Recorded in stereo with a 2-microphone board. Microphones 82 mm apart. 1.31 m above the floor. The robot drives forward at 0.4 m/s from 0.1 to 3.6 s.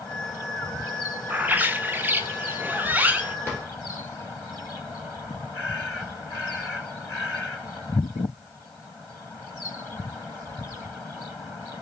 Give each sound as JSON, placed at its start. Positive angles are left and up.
{"t": 1.3, "sound": "a bird", "side_deg": -20, "distance_m": 0.7}
{"t": 3.5, "sound": "a drawer", "side_deg": 20, "distance_m": 2.0}